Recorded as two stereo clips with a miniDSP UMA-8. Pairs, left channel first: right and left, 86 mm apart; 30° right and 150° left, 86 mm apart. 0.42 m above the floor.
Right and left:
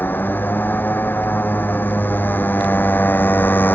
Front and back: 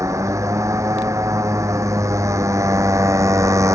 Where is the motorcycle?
155° right.